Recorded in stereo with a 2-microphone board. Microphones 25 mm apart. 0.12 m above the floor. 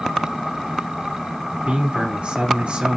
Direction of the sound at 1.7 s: 50° right (ahead or behind).